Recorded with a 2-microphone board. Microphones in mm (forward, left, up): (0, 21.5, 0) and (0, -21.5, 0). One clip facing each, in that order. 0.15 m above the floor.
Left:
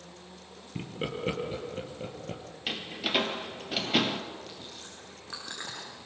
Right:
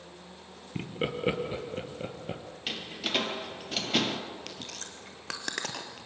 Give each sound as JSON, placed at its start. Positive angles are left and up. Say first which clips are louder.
{"t": 0.8, "sound": "laughter", "louder": "right 2 dB", "side_deg": -15, "distance_m": 2.5}
{"t": 2.7, "sound": "a door slam", "louder": "left 2 dB", "side_deg": 5, "distance_m": 2.0}
{"t": 4.5, "sound": "chewing", "louder": "right 2 dB", "side_deg": -70, "distance_m": 2.5}